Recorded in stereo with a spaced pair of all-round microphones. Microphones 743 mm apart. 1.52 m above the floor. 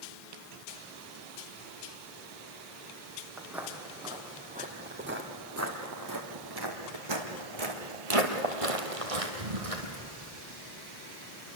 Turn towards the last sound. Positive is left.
turn(degrees=-50)  # may be behind; listen again after turning